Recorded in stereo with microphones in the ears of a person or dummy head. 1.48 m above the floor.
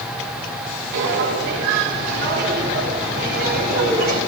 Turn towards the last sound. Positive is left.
turn(degrees=-45)  # may be behind; listen again after turning